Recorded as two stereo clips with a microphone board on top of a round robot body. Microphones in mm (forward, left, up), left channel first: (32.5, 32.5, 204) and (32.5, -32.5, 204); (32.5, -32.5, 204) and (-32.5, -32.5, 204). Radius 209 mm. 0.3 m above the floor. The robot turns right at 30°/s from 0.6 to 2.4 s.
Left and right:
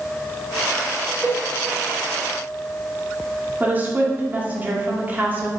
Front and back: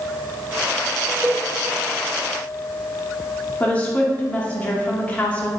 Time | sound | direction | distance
1.2 | a cowbell | 130° right | 1.3 m
3.6 | a woman speaking | 50° right | 1.5 m